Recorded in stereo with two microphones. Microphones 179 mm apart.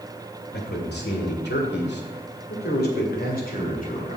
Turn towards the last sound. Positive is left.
turn(degrees=45)  # may be behind; listen again after turning